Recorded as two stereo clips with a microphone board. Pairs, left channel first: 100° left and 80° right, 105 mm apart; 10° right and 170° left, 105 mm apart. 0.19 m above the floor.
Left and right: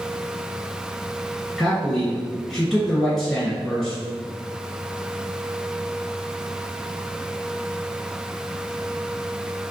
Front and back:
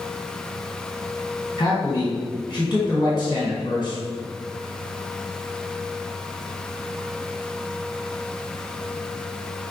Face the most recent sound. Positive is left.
turn(degrees=15)